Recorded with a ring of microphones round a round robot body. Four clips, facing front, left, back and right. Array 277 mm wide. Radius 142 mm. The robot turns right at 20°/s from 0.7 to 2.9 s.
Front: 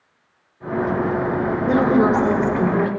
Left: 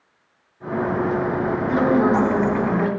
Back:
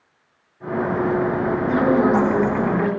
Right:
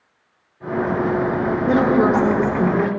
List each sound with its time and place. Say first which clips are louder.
1.7 s a woman speaking: right 2 dB, front 1 dB; 60° right, 2 m; by 2.9 s 35° right, 2 m